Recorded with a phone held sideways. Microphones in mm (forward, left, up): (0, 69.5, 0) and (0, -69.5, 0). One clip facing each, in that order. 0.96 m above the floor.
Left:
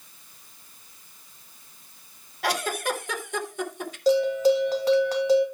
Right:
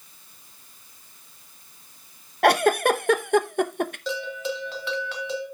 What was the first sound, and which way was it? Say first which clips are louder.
A giggle: right 9 dB; 60° right (ahead or behind).